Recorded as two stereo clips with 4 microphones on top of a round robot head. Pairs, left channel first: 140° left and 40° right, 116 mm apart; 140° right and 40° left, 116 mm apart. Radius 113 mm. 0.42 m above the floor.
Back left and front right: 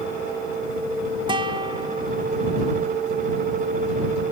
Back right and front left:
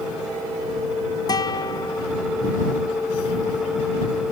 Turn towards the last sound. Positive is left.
turn(degrees=-85)